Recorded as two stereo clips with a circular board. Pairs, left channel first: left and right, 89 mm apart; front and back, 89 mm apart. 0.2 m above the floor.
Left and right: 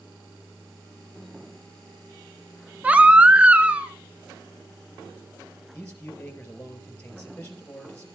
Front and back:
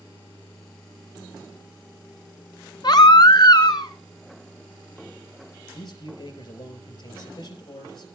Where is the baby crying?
20° right, 1.1 m.